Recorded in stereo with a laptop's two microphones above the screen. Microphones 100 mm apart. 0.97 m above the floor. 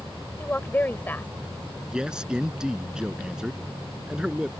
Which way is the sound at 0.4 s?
20° left (ahead or behind).